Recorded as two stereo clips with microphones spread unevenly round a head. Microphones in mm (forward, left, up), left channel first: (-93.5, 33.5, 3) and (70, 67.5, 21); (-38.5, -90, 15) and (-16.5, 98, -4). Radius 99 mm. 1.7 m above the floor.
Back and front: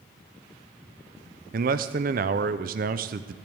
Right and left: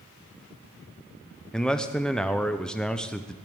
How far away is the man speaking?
About 0.6 m.